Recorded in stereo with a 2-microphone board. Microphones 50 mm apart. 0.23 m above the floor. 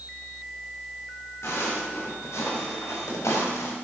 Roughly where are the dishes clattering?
No dishes clattering in this recording.